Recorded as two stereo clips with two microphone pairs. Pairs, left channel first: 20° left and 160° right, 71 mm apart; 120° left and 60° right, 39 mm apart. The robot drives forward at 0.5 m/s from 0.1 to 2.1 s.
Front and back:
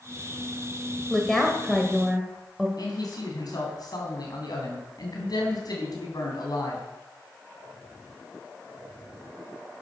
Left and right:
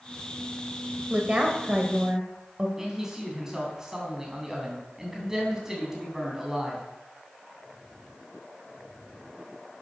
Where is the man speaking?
15° left, 3 m.